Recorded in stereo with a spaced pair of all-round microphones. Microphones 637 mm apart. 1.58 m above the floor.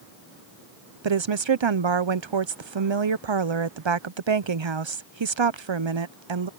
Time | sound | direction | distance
1.0 | a woman speaking | 45° right (ahead or behind) | ?